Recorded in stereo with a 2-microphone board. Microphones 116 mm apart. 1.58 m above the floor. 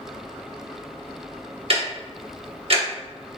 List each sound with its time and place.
1.7 s ticking: 55° right (ahead or behind), 1.0 m